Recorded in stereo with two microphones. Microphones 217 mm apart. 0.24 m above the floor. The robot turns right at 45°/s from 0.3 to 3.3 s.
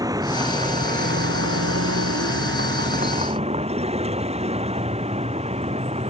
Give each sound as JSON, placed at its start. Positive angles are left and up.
{"t": 0.0, "sound": "a vehicle", "azimuth_deg": -165}